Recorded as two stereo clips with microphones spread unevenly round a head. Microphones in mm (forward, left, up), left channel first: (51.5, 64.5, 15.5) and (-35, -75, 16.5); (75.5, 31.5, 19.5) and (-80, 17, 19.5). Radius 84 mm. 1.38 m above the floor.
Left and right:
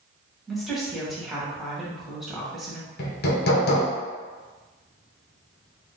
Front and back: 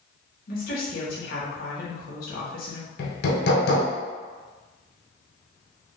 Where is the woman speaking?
30° right, 1.5 m.